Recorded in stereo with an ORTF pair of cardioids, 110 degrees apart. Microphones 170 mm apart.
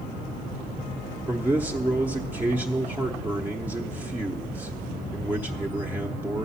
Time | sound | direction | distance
1.3 | a man speaking | 10° right | 0.9 m